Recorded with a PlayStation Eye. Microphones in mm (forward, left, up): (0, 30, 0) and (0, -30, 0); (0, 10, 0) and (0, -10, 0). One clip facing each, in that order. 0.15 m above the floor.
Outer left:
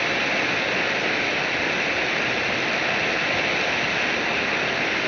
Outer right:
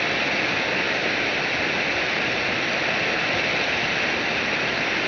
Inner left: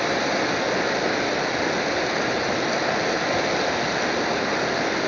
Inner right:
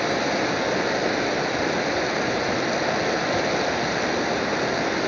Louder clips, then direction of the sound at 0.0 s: Even, even; centre (ahead or behind).